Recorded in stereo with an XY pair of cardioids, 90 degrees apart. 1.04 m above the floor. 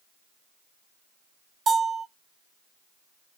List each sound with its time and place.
1.7 s a bell: 55° right, 0.9 m